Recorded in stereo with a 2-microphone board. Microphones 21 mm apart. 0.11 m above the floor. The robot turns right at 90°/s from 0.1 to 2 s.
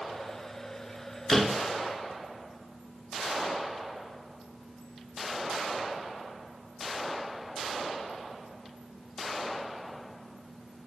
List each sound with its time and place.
1.3 s a door slam: 10° left (ahead or behind), 0.8 m; by 1.6 s 15° left (ahead or behind), 0.8 m